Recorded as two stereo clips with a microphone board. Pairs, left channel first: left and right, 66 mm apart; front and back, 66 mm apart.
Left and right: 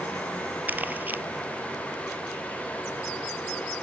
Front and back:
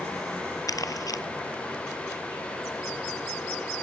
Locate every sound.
0.7 s crumpling: 25° right